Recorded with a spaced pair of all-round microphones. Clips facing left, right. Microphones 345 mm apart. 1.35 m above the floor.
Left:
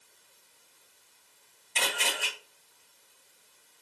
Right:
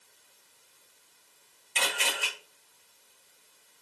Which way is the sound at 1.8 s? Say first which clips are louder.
Even; 55° left (ahead or behind).